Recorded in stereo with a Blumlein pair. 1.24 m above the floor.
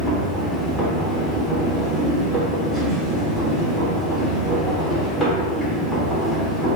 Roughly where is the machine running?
Ahead.